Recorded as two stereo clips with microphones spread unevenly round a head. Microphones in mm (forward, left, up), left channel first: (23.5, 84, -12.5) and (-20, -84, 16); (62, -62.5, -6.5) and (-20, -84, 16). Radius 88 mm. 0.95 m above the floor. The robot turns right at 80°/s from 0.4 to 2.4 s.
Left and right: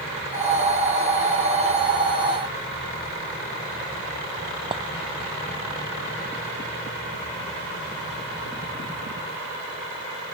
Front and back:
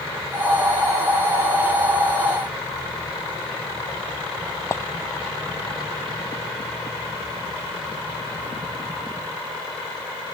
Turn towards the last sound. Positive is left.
turn(degrees=-40)